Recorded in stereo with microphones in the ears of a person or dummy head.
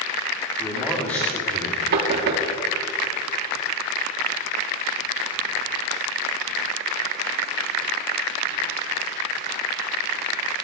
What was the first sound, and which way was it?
A man speaking, 10° left (ahead or behind).